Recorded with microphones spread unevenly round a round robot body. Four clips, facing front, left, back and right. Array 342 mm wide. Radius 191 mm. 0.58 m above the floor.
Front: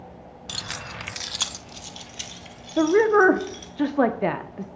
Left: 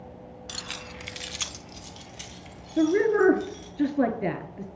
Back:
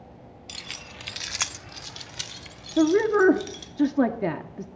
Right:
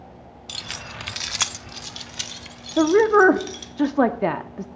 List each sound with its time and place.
0.5 s keys jangling: 10° right, 0.7 m; by 3.7 s 125° right, 2.5 m
2.8 s a woman speaking: 170° right, 0.7 m